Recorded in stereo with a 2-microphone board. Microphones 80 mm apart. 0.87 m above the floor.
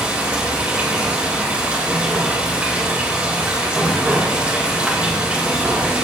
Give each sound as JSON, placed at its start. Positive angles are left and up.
{"t": 0.0, "sound": "running water", "side_deg": -15, "distance_m": 3.5}